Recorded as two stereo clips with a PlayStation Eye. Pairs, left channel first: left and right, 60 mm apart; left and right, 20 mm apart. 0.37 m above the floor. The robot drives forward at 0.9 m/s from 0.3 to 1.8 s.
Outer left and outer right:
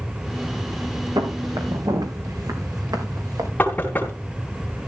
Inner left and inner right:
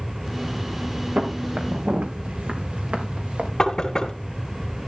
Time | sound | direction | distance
1.2 | footsteps | 85° right | 4 m
3.6 | knocking | 25° left (ahead or behind) | 3.5 m